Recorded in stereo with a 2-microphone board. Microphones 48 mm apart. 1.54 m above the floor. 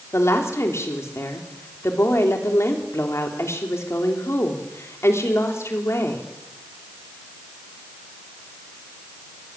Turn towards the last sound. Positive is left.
turn(degrees=75)  # may be behind; listen again after turning